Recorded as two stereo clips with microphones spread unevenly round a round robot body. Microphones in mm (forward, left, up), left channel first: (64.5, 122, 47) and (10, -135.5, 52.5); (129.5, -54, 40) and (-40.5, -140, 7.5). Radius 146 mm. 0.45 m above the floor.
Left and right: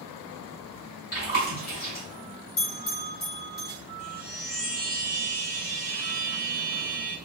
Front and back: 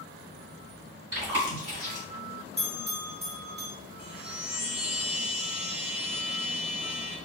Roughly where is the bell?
Left.